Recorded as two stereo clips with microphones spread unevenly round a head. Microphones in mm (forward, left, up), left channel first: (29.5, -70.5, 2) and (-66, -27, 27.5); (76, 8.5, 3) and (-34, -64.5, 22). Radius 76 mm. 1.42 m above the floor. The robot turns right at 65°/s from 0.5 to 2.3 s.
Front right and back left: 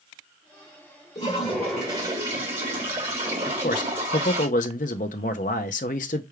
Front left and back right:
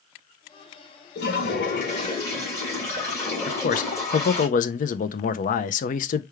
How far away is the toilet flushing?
About 2 m.